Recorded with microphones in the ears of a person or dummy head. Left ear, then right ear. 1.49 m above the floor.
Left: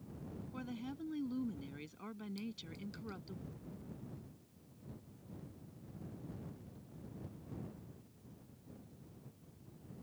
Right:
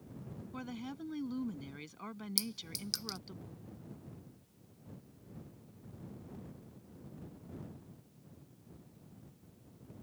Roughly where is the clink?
Right.